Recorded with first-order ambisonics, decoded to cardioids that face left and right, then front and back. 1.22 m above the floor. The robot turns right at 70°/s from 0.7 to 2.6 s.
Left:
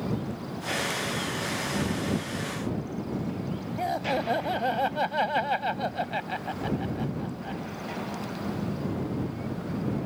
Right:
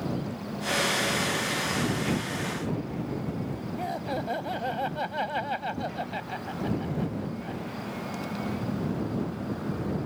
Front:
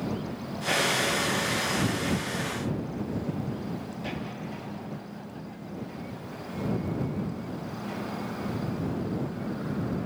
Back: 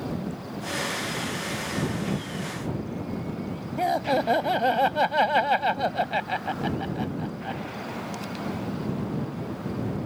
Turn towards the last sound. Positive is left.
turn(degrees=165)